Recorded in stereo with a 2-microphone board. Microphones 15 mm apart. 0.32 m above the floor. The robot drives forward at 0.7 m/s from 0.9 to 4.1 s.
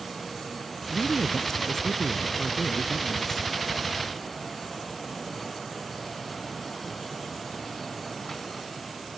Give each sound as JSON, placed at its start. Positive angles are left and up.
{"t": 0.9, "sound": "a woman speaking", "side_deg": 45}